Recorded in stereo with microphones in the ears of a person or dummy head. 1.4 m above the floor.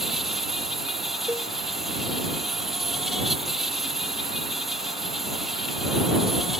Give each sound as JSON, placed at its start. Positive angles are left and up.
{"t": 0.0, "sound": "an insect", "side_deg": 0}
{"t": 1.3, "sound": "a cowbell", "side_deg": -10}